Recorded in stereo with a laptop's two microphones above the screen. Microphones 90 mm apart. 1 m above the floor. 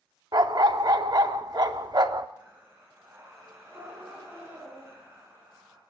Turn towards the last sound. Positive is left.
turn(degrees=-25)  # may be behind; listen again after turning